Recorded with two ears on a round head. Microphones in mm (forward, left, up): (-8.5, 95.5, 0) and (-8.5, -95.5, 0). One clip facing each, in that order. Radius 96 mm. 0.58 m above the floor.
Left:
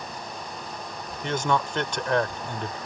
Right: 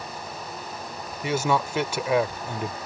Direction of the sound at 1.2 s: 10° right (ahead or behind).